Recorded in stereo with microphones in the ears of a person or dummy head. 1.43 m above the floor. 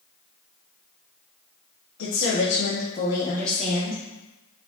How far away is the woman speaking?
About 0.8 m.